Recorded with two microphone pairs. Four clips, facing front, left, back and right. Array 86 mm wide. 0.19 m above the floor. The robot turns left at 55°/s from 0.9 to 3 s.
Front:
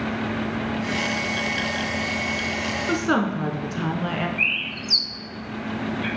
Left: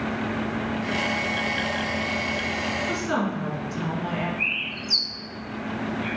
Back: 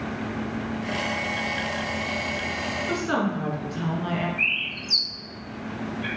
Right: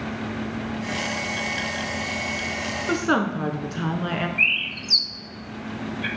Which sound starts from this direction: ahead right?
A woman speaking, at 2.9 s.